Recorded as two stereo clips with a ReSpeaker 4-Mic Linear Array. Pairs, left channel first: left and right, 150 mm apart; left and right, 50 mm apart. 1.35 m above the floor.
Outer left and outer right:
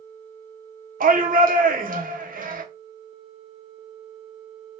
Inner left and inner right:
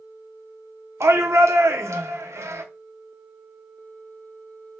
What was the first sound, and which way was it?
A shout, 70° right (ahead or behind).